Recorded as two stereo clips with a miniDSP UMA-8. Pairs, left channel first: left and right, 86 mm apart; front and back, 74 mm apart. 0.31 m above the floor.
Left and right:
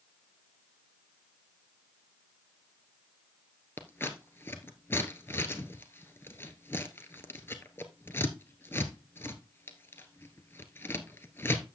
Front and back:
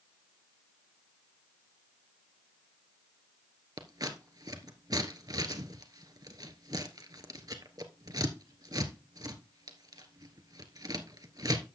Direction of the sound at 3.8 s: 150° left.